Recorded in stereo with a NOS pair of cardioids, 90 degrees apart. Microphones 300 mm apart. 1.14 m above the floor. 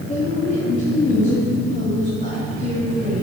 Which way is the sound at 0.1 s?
25° left.